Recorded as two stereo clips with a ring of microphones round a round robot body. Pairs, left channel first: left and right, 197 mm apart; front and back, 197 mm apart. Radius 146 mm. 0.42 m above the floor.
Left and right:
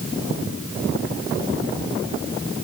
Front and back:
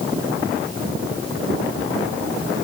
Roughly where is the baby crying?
No baby crying in this recording.